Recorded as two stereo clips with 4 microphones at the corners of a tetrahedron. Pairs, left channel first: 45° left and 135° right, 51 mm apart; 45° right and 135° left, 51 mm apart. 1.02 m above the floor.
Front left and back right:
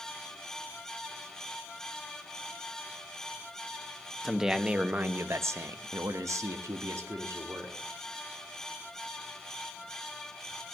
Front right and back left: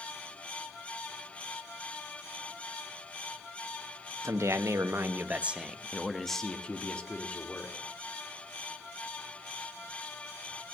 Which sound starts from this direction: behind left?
A man speaking, at 4.2 s.